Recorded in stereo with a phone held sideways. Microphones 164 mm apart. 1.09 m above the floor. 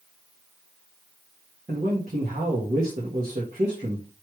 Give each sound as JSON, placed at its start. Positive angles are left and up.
{"t": 1.7, "sound": "a man speaking", "side_deg": -50, "distance_m": 1.3}